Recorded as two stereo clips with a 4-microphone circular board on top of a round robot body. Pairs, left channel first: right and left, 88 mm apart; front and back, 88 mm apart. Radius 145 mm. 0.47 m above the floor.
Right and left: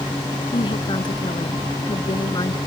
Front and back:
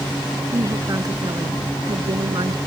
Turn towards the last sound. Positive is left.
turn(degrees=-140)